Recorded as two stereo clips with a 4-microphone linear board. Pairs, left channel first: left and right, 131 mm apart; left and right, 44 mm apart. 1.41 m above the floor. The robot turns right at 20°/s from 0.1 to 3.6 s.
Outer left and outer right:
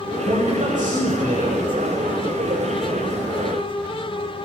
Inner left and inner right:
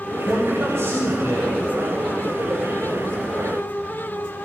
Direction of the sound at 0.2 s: 65° right (ahead or behind).